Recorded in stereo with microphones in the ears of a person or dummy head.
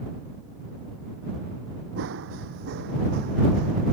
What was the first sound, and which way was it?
Running footsteps, 70° right (ahead or behind).